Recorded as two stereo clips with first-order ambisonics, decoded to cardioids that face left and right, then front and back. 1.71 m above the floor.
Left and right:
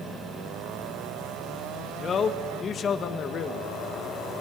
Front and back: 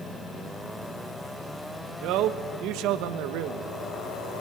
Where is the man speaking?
150° left, 1.5 m.